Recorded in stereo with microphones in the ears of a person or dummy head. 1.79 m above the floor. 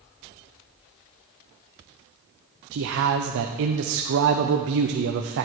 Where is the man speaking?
65° right (ahead or behind), 0.8 m.